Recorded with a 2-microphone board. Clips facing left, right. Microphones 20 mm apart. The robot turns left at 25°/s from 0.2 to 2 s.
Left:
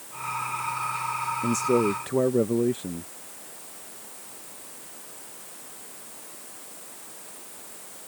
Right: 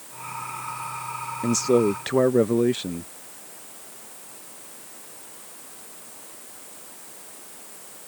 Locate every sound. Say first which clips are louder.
1.4 s a man speaking: right 4 dB; 45° right (ahead or behind); by 3.1 s 50° right (ahead or behind)